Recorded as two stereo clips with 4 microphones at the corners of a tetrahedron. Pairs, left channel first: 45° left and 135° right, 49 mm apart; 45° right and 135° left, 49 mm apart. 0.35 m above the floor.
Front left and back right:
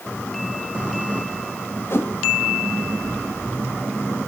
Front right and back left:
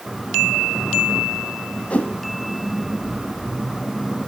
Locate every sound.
1.9 s a whoosh: 15° left, 1.6 m